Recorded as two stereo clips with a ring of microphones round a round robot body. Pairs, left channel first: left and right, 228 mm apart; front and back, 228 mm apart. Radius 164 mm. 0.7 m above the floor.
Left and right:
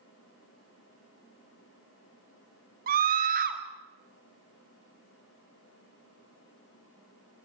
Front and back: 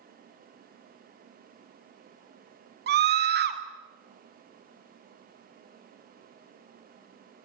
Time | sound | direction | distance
2.9 | a scream | 140° right | 1.8 m